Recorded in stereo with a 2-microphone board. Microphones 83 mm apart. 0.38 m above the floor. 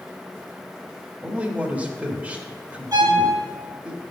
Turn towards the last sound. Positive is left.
turn(degrees=-45)  # may be behind; listen again after turning